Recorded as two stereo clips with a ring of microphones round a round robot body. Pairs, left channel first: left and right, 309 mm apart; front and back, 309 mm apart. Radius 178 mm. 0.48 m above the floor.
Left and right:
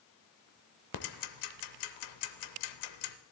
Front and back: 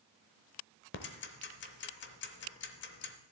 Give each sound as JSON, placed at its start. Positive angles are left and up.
{"t": 0.9, "sound": "ticking", "azimuth_deg": 60, "distance_m": 0.6}